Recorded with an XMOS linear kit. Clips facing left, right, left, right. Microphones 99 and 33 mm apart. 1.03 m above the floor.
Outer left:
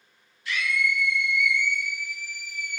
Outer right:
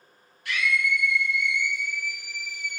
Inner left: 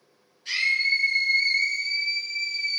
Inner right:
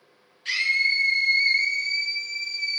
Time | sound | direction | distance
0.5 | a scream | 65° right (ahead or behind) | 1.0 m